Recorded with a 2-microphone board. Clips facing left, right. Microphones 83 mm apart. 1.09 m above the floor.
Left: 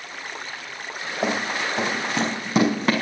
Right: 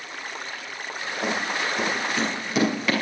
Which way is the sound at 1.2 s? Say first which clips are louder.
Left 2 dB; 25° left (ahead or behind).